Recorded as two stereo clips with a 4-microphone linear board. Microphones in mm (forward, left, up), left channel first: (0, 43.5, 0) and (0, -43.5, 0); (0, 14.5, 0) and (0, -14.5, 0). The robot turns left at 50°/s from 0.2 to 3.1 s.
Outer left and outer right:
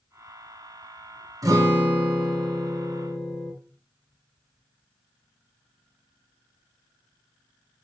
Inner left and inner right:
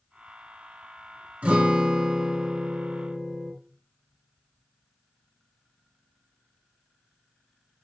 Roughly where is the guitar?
Behind right.